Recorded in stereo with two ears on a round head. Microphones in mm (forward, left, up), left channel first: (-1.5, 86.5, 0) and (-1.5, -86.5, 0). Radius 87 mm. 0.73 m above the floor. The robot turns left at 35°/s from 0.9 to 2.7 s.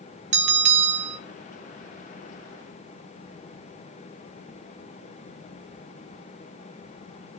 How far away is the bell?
About 1.7 m.